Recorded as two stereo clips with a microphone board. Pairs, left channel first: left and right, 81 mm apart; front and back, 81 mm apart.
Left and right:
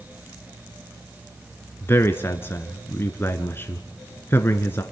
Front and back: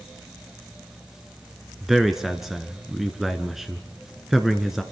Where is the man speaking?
95° left, 1.2 m.